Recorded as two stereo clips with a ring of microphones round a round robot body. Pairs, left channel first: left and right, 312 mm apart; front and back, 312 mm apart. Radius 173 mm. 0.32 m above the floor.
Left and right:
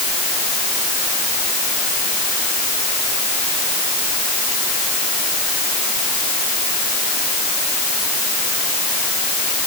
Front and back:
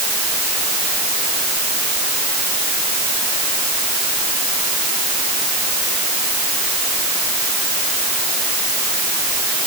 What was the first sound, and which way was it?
Only background noise.